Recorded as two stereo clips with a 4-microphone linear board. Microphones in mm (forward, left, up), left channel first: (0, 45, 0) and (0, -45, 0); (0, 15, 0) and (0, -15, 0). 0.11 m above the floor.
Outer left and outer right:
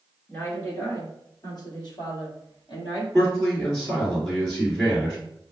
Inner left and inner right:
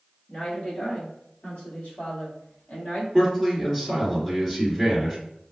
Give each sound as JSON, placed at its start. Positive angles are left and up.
{"t": 0.3, "sound": "a woman speaking", "side_deg": 25, "distance_m": 1.9}
{"t": 3.1, "sound": "a man speaking", "side_deg": 10, "distance_m": 1.8}